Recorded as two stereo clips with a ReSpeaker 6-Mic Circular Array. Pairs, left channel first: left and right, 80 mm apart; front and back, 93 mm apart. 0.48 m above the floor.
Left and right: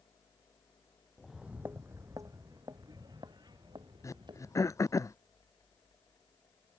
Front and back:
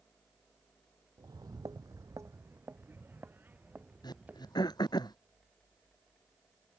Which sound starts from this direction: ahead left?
Throat clearing, at 4.0 s.